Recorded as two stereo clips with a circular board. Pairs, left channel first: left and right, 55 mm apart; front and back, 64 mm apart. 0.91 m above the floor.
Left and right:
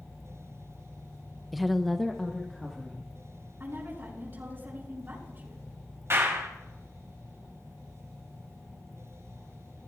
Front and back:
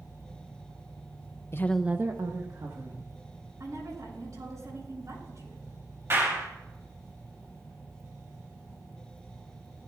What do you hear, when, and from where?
1.5 s a woman speaking: 5° right, 0.6 m; by 3.2 s 175° left, 2 m
3.6 s a woman speaking: 145° right, 6 m
6.1 s a clap: 130° right, 3.5 m